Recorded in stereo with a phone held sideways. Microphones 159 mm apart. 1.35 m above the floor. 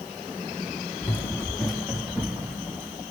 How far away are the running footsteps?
About 3 m.